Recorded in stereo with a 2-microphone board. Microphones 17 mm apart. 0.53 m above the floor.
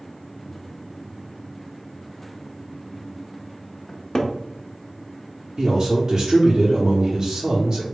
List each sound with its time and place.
3.9 s a cupboard door: 35° left (ahead or behind), 0.6 m
5.6 s a man speaking: 35° right (ahead or behind), 0.9 m